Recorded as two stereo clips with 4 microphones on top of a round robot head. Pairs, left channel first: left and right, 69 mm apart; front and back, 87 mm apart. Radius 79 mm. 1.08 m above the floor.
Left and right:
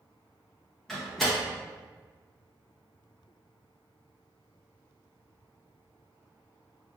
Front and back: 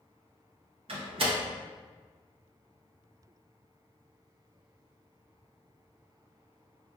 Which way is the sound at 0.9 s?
175° left.